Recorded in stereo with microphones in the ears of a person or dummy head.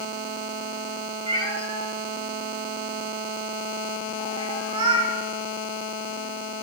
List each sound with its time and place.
1.3 s a cat meowing: 30° right (ahead or behind), 2.5 m